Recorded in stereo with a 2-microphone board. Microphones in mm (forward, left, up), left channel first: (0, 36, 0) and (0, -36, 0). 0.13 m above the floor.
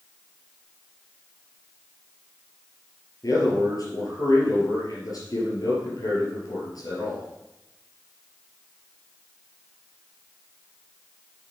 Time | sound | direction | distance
3.2 | a man speaking | 60° left (ahead or behind) | 3.5 m